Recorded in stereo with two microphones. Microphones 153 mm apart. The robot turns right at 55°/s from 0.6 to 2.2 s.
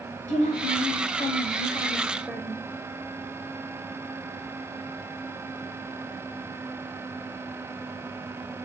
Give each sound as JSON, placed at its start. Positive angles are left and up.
{"t": 0.3, "sound": "a woman speaking", "azimuth_deg": 100, "distance_m": 1.2}